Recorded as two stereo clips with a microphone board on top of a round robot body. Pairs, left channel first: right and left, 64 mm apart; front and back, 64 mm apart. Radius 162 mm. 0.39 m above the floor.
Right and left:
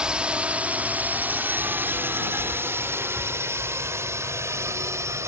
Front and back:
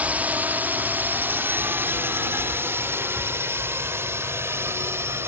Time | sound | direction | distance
0.0 | a drone | 145° left | ?